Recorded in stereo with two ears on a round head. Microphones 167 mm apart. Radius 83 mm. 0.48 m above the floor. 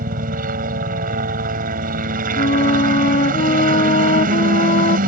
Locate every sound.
0.0 s a helicopter: 45° right (ahead or behind)
2.4 s a flute: 40° left (ahead or behind)